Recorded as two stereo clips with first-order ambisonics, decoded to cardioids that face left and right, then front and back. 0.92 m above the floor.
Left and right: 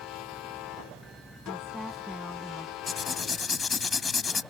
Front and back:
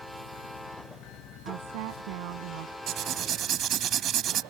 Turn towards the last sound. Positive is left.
turn(degrees=155)